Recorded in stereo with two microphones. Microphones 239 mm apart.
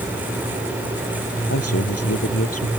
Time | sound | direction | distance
1.5 | a man speaking | 75° left (ahead or behind) | ?